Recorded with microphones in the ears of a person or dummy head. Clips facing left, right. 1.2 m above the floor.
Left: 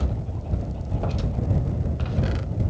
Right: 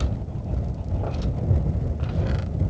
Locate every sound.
Only background noise.